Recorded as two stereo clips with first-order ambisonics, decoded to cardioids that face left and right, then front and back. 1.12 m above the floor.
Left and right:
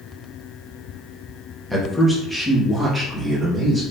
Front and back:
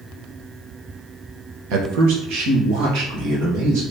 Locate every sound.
1.7 s a man speaking: straight behind, 1.0 m; by 3.8 s 170° right, 2.5 m